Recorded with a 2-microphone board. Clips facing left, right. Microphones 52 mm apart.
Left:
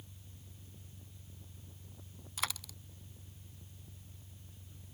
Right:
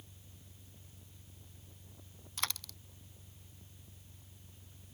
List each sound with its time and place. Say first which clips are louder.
0.0 s an engine running: left 2 dB; 10° right (ahead or behind)
2.4 s a dropped coin: left 1 dB; 5° left (ahead or behind)